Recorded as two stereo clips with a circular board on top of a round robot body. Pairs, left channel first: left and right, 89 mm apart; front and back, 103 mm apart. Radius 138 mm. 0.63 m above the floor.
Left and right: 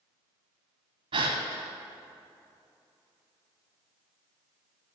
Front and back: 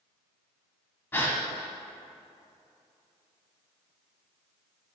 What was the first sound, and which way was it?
A gasp, 70° right.